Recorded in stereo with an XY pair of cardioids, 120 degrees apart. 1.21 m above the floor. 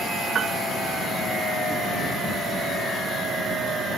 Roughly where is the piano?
Ahead right.